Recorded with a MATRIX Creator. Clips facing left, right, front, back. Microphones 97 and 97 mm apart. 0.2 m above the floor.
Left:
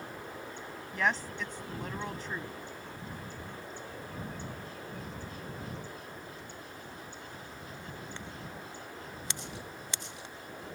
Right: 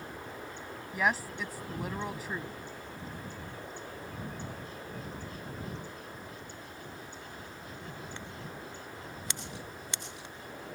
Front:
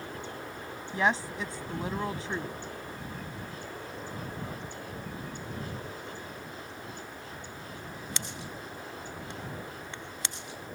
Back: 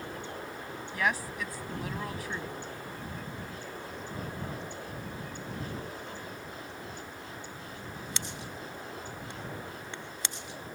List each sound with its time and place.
0.9 s a woman speaking: 20° right